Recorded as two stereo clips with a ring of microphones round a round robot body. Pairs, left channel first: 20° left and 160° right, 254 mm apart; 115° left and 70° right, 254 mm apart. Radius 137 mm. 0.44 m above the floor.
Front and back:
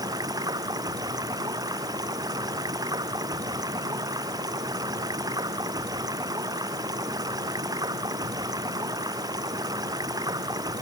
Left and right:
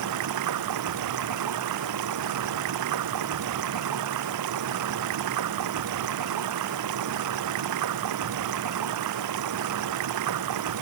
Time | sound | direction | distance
0.0 | running water | 80° right | ?